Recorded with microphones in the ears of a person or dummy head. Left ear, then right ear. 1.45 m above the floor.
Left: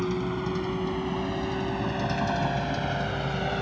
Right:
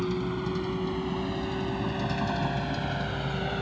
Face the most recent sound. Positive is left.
turn(degrees=15)  # may be behind; listen again after turning